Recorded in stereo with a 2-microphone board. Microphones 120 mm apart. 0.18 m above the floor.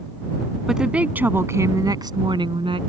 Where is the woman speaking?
5° right (ahead or behind); by 2.8 s 50° right (ahead or behind).